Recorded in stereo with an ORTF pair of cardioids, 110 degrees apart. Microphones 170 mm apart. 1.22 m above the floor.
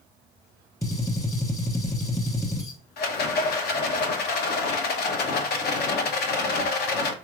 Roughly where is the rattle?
Left.